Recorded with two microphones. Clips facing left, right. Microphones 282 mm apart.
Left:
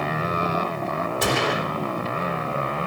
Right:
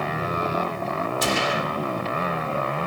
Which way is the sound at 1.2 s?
65° left (ahead or behind).